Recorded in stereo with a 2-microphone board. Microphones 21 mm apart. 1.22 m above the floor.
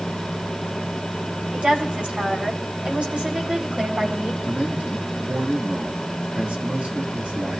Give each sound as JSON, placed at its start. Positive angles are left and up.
{"t": 1.5, "sound": "a woman speaking", "side_deg": -85, "distance_m": 4.5}
{"t": 4.4, "sound": "a man speaking", "side_deg": -90, "distance_m": 2.5}